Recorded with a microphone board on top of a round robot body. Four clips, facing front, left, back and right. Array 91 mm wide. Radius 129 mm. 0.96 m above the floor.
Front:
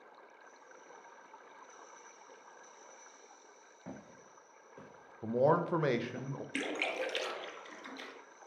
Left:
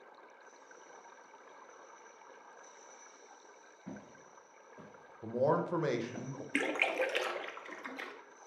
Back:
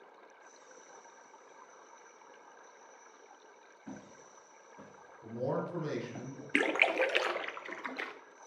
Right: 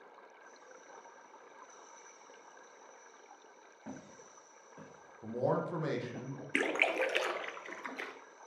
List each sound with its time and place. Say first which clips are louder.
3.9 s footsteps: right 1 dB, back 1 dB; 35° right, 2.5 m; by 6.2 s 165° right, 1.1 m
5.2 s a man speaking: left 2 dB, front 7 dB; 10° left, 0.6 m
6.5 s a splash: right 1 dB, back 8 dB; 170° right, 0.6 m